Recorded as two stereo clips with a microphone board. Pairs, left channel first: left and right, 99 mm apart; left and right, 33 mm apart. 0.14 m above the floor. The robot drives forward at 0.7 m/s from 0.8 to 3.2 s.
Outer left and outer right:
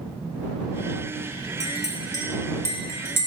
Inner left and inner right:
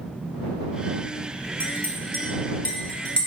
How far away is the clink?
About 1.2 m.